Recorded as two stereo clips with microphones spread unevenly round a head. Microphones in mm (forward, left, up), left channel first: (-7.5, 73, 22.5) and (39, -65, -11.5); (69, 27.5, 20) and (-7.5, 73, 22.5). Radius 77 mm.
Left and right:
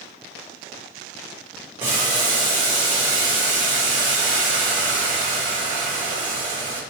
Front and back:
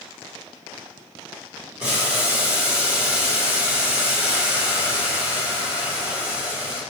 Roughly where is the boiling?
Behind right.